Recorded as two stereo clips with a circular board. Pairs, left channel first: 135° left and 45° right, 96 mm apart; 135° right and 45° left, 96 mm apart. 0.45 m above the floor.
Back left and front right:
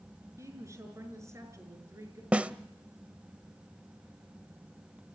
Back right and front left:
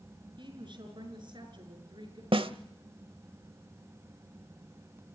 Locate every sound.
0.4 s a woman speaking: 15° left, 5.5 m
2.3 s a snare drum: 30° left, 0.8 m